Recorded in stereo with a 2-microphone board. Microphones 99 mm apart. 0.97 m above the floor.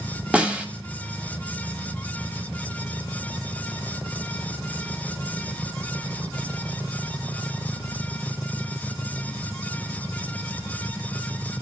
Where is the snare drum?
10° right (ahead or behind), 1.9 m.